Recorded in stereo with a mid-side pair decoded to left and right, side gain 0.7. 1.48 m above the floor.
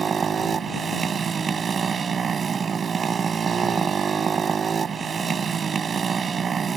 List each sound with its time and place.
0.0 s a motorcycle: 30° right